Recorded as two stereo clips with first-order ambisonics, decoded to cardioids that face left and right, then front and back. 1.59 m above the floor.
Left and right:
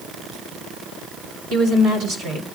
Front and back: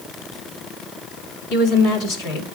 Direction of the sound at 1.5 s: 45° right.